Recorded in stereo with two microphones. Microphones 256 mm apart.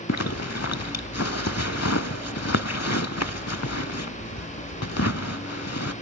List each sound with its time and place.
0.1 s a zipper: 75° left (ahead or behind), 0.6 m